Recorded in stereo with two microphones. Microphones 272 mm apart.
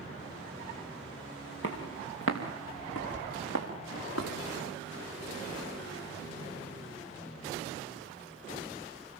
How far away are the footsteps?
About 4.5 m.